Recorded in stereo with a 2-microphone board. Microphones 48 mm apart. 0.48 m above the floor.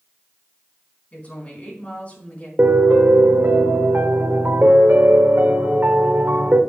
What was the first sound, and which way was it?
A woman speaking, 35° left (ahead or behind).